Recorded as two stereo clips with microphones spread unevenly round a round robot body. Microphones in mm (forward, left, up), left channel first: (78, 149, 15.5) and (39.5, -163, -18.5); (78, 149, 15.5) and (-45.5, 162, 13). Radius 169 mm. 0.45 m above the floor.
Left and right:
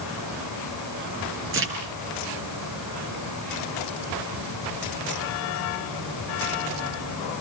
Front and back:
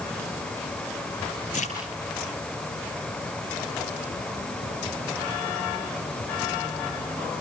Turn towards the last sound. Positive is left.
turn(degrees=-45)